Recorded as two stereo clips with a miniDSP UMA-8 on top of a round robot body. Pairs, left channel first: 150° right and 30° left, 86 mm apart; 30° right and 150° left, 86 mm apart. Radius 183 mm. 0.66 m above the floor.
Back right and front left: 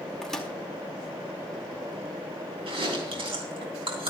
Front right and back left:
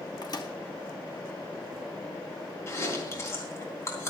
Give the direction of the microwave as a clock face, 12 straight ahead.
2 o'clock.